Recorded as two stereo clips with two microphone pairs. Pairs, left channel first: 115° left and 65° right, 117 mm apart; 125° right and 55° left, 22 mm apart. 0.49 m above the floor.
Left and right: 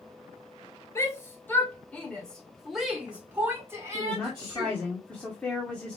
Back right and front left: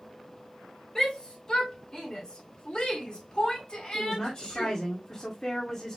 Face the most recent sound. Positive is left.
turn(degrees=-170)